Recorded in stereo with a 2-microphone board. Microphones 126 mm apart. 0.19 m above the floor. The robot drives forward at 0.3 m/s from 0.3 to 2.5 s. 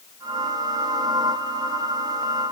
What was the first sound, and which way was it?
Only background noise.